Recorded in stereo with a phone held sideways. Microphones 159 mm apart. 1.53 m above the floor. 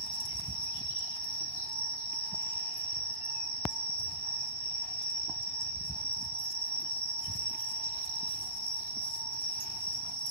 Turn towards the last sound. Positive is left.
turn(degrees=60)  # may be behind; listen again after turning